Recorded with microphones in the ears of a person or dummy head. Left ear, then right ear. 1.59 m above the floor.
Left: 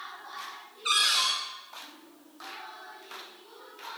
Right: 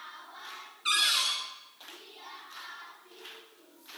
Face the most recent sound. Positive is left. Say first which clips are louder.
# left 2 dB
turn(degrees=-10)  # may be behind; listen again after turning